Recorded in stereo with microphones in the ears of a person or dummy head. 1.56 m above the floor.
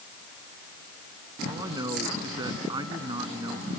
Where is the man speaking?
25° right (ahead or behind).